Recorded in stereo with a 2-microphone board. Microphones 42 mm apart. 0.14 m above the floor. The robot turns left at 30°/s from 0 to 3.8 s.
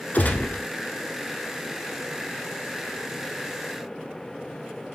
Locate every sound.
0.1 s a gunshot: 50° left (ahead or behind), 0.6 m; by 0.6 s 45° left (ahead or behind), 0.6 m